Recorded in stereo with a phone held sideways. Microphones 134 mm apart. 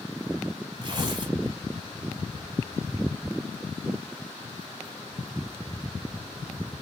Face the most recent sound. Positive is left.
turn(degrees=-30)  # may be behind; listen again after turning